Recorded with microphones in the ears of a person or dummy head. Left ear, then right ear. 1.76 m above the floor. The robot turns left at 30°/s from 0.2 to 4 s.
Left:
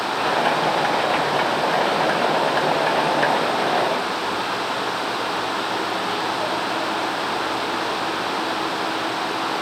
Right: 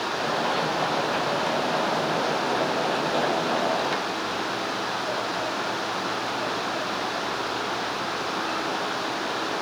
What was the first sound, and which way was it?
Only background noise.